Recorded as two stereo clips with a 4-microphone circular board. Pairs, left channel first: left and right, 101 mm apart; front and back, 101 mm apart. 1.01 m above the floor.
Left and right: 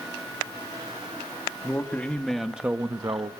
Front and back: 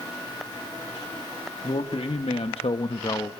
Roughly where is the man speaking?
Ahead.